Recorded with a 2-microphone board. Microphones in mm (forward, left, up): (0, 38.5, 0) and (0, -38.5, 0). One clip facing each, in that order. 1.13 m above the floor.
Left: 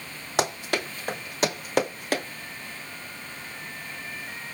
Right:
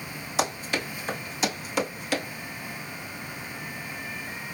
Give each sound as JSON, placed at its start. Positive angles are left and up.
{"t": 0.4, "sound": "running footsteps", "side_deg": 60, "distance_m": 2.5}